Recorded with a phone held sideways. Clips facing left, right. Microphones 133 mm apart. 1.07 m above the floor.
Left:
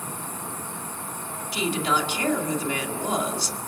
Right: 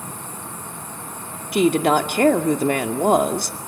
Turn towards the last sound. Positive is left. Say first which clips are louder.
# right 9 dB
turn(degrees=-60)  # may be behind; listen again after turning